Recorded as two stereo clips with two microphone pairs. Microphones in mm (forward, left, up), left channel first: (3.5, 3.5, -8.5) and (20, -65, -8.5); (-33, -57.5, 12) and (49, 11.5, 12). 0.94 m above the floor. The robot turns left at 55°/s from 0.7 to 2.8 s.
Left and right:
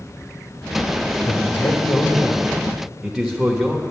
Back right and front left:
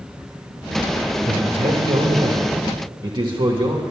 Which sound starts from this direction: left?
A man speaking, at 1.2 s.